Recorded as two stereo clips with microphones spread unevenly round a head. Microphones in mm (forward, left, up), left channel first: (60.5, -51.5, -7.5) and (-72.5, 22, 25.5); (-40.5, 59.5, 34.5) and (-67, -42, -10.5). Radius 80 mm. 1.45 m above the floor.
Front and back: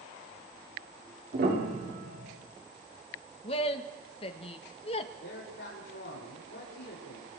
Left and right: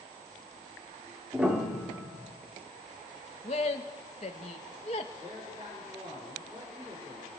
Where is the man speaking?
40° right, 6.5 m.